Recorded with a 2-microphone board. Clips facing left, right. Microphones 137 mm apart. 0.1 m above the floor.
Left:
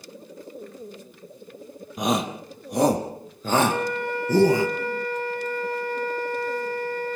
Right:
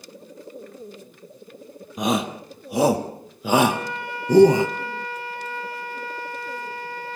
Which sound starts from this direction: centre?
A shout, at 2.0 s.